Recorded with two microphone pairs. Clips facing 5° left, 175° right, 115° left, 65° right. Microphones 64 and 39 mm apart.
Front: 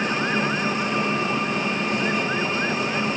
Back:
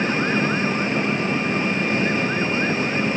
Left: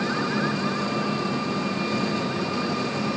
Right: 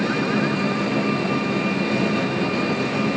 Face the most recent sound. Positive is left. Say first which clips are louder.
# back 2 dB, right 4 dB
turn(degrees=-120)